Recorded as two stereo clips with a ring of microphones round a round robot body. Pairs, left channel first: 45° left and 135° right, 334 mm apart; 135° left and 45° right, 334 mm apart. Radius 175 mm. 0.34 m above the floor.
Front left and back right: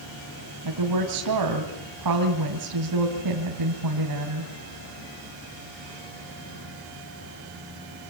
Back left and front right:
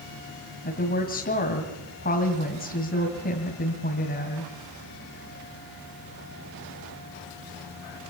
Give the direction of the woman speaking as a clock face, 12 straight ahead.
5 o'clock.